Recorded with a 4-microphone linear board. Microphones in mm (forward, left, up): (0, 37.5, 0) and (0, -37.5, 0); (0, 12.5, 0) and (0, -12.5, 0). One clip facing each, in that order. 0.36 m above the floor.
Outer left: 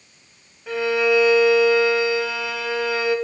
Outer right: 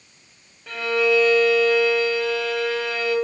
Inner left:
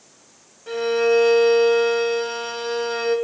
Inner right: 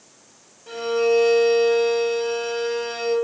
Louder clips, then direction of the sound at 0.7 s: Outer left 1 dB, inner left 1 dB; 10° left (ahead or behind).